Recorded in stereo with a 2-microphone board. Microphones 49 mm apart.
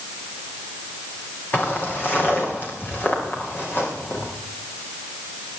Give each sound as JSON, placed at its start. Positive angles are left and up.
{"t": 1.5, "sound": "footsteps", "side_deg": 35, "distance_m": 4.5}